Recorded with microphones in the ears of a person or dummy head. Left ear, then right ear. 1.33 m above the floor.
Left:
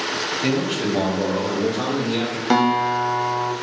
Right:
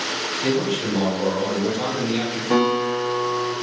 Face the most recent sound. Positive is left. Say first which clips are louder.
# left 2 dB
turn(degrees=60)  # may be behind; listen again after turning